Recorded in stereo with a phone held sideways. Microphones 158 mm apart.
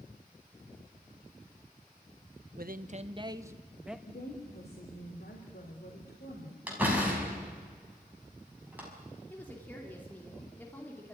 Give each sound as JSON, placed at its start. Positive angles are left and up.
{"t": 2.6, "sound": "a man speaking", "side_deg": -70, "distance_m": 1.0}
{"t": 4.1, "sound": "a woman speaking", "side_deg": 85, "distance_m": 3.5}
{"t": 6.7, "sound": "a door slam", "side_deg": -10, "distance_m": 6.0}
{"t": 9.3, "sound": "a woman speaking", "side_deg": 10, "distance_m": 3.0}